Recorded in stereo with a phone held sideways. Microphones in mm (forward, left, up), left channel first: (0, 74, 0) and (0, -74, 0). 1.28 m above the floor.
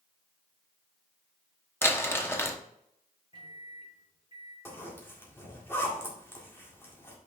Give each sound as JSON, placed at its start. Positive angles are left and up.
{"t": 1.8, "sound": "crumpling", "side_deg": 15, "distance_m": 0.8}
{"t": 3.3, "sound": "a microwave", "side_deg": -35, "distance_m": 3.0}
{"t": 4.7, "sound": "a zipper", "side_deg": 15, "distance_m": 1.9}